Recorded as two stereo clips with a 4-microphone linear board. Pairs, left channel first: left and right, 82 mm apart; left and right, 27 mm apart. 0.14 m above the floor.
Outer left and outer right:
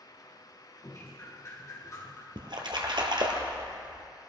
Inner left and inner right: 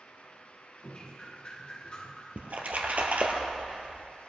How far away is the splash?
About 1.6 m.